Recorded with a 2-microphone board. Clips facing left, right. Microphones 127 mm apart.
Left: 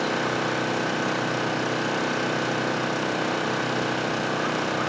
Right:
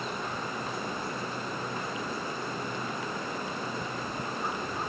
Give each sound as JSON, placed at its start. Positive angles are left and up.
{"t": 0.0, "sound": "an engine running", "side_deg": 85}